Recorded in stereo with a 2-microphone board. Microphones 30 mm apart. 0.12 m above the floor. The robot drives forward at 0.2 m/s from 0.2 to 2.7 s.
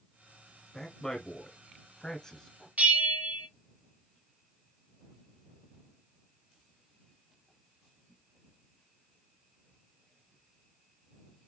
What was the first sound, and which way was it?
A man speaking, 20° left (ahead or behind).